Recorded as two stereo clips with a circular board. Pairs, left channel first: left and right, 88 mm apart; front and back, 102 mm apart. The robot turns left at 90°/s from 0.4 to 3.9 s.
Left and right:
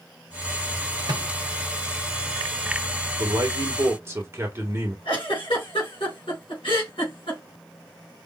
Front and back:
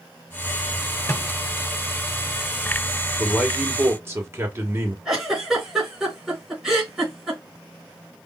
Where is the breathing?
I don't hear breathing.